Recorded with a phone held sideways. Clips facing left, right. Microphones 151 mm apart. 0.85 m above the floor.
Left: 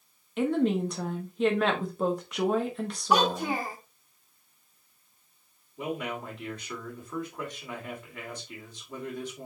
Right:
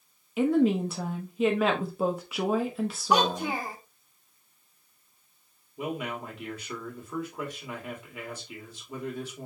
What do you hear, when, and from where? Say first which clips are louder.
0.4 s a woman speaking: right 3 dB; 5° right (ahead or behind), 1.0 m
3.1 s a child speaking: left 1 dB; 10° left (ahead or behind), 1.3 m
5.8 s a man speaking: even; 10° right (ahead or behind), 2.5 m